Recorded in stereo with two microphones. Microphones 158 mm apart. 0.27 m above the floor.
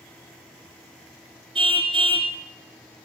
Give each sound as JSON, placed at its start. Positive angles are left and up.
{"t": 1.6, "sound": "a car horn", "side_deg": -35, "distance_m": 2.5}